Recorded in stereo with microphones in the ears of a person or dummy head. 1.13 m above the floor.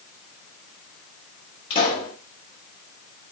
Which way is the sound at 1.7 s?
30° left (ahead or behind).